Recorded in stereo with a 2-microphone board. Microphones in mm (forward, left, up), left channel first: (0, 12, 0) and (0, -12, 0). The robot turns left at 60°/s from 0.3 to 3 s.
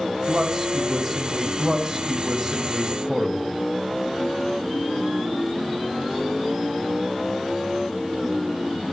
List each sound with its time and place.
0.3 s a man speaking: 25° right (ahead or behind), 1.1 m; by 1.5 s centre (ahead or behind), 1.1 m
1.6 s a man speaking: 95° right, 1.1 m; by 3.6 s straight behind, 1.1 m